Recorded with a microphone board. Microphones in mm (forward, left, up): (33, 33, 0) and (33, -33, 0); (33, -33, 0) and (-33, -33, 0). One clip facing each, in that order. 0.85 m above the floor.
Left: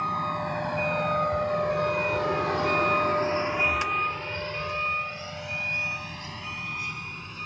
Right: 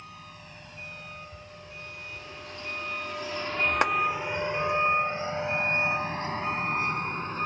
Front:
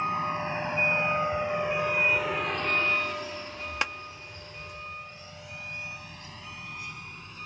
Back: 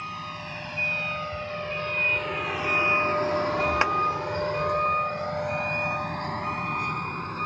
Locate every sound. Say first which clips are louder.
0.0 s a vehicle: left 19 dB, front 7 dB; 60° left; by 7.5 s 140° right
3.8 s a clap: right 4 dB, back 4 dB; 120° right